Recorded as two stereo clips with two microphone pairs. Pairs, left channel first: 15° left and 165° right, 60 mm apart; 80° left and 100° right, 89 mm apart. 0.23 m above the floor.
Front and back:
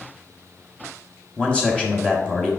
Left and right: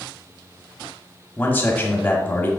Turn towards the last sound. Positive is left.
turn(degrees=60)